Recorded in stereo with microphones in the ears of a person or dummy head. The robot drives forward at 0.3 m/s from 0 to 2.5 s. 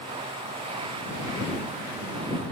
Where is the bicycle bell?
No bicycle bell in this recording.